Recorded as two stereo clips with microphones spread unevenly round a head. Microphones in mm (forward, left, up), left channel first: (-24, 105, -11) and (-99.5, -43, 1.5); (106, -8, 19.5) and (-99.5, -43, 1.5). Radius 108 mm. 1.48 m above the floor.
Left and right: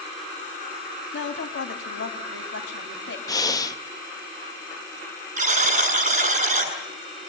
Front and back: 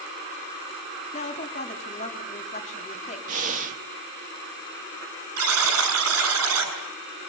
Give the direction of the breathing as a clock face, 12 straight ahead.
8 o'clock.